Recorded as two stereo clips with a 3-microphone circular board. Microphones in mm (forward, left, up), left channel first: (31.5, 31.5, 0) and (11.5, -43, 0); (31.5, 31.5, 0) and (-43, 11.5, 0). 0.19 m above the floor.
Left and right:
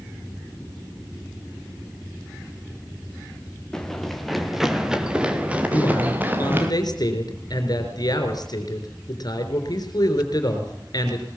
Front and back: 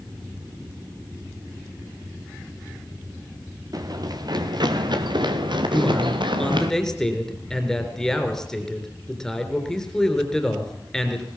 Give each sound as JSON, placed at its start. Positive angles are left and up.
{"t": 3.7, "sound": "running footsteps", "azimuth_deg": 155, "distance_m": 2.5}
{"t": 5.7, "sound": "a man speaking", "azimuth_deg": 95, "distance_m": 3.5}